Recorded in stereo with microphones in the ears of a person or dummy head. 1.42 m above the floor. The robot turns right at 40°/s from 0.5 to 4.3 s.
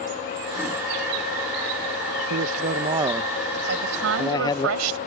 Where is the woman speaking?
55° right (ahead or behind); by 5.0 s 80° right.